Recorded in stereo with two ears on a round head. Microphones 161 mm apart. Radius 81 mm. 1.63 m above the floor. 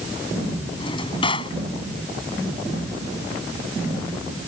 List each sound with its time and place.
0.8 s a drawer: 30° left (ahead or behind)